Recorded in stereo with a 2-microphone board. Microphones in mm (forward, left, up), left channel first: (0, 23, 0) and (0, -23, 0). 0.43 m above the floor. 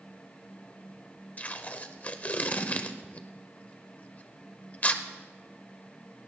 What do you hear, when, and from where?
1.4 s tape being pulled: 35° left (ahead or behind), 0.7 m